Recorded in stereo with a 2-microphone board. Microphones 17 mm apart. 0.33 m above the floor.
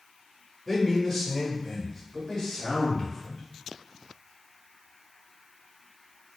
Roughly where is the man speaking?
Centre.